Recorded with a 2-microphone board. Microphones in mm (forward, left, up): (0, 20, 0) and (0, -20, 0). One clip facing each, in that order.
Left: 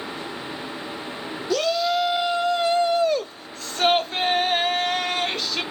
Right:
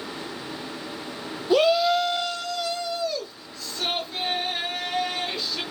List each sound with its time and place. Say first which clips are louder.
1.5 s a shout: right 3 dB; 20° right (ahead or behind), 0.8 m; by 5.6 s 65° left (ahead or behind), 3.5 m